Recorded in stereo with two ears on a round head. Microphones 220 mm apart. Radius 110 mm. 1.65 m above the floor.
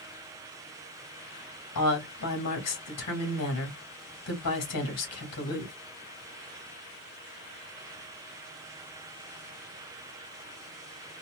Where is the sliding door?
I don't hear a sliding door.